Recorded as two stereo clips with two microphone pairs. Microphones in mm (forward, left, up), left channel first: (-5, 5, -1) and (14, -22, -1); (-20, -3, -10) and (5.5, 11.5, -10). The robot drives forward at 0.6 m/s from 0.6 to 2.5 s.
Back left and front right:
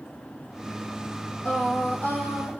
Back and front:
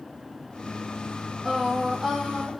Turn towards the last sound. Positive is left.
turn(degrees=115)